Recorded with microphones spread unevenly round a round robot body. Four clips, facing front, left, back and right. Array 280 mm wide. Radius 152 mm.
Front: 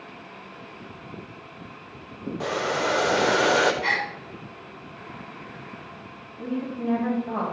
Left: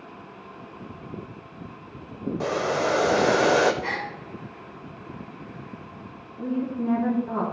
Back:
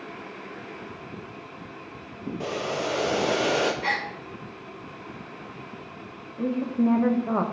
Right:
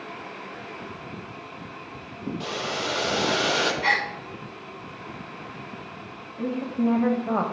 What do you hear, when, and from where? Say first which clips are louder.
2.4 s boiling: left 8 dB, front 3 dB; 105° left, 0.9 m
3.8 s a gasp: right 5 dB, front 1 dB; 85° right, 4.5 m
6.4 s a woman speaking: right 2 dB, back 5 dB; 175° right, 1.7 m